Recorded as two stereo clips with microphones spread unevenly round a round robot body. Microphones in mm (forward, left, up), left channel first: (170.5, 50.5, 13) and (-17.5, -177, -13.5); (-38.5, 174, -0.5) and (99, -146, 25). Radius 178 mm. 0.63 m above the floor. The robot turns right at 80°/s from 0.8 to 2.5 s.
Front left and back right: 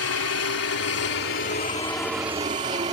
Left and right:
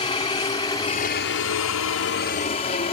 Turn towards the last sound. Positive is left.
turn(degrees=170)